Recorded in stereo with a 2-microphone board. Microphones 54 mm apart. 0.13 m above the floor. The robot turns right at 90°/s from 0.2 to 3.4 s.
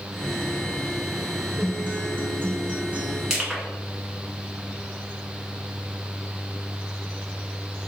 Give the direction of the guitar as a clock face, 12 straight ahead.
5 o'clock.